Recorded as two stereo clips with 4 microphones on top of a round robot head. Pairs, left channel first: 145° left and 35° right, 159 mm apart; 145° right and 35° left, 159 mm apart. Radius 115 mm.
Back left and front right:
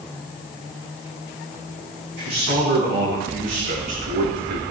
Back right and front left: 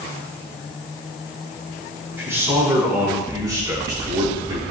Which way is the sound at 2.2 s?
40° right.